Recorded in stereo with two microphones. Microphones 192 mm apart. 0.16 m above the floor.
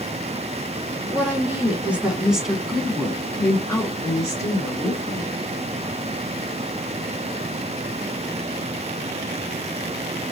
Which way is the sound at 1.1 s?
10° right (ahead or behind).